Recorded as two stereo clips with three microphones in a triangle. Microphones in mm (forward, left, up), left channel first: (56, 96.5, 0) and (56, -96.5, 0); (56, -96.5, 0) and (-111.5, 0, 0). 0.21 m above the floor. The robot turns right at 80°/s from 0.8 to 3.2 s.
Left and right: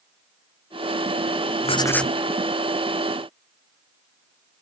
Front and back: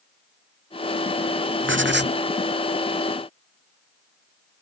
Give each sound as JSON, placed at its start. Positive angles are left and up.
{"t": 1.6, "sound": "writing", "azimuth_deg": 145}